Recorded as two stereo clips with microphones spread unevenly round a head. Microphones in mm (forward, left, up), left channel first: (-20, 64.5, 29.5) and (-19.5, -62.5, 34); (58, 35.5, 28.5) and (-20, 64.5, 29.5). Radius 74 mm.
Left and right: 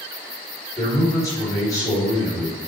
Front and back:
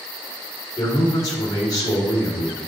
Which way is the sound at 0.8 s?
25° left.